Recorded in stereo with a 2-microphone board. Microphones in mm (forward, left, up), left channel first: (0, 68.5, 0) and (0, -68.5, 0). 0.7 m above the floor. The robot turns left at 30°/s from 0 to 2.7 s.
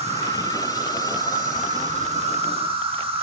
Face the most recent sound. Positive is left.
turn(degrees=-135)